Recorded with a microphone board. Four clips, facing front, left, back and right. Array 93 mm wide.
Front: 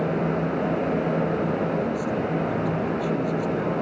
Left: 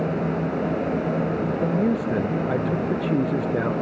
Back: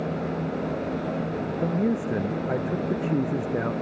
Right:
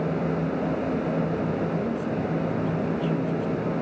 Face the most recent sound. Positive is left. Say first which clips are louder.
# left 5 dB, even
turn(degrees=120)